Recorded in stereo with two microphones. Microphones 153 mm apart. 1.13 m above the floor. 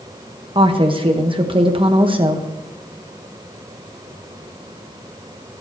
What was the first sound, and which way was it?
A woman speaking, 35° right (ahead or behind).